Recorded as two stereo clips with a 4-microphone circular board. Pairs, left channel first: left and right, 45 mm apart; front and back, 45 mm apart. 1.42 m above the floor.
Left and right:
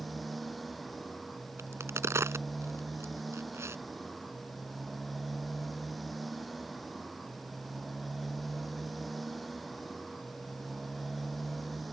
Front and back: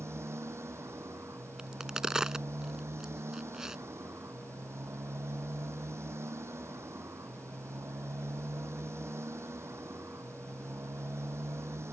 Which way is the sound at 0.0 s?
Straight behind.